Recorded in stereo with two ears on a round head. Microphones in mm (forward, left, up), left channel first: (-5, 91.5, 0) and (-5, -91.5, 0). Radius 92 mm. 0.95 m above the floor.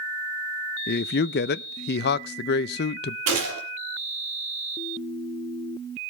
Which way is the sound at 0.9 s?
50° left (ahead or behind).